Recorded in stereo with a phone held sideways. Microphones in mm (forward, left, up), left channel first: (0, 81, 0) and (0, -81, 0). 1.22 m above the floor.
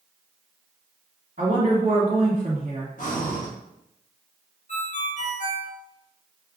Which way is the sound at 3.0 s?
55° left (ahead or behind).